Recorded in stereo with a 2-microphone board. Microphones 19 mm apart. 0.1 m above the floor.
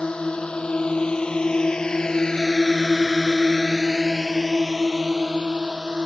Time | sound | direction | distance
0.0 | a drone | 65° left (ahead or behind) | ?